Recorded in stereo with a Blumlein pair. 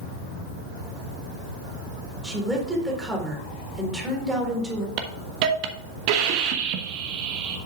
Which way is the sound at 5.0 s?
45° right.